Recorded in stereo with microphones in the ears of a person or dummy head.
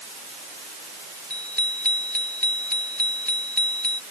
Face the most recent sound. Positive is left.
turn(degrees=10)  # may be behind; listen again after turning